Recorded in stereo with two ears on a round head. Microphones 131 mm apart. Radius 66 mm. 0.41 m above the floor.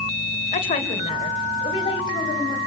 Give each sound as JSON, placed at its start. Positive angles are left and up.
{"t": 0.5, "sound": "a woman speaking", "side_deg": 50, "distance_m": 2.0}